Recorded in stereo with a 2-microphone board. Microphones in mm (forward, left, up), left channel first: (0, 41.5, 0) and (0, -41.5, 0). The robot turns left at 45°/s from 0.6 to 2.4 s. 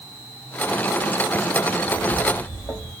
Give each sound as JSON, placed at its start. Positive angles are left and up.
{"t": 1.7, "sound": "footsteps", "side_deg": 15, "distance_m": 2.5}